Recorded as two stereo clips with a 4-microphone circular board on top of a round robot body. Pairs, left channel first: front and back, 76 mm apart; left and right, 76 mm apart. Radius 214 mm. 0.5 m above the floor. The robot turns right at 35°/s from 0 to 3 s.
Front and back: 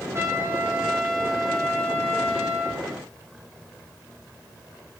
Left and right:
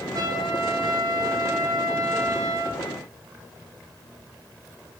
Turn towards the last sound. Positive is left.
turn(degrees=-25)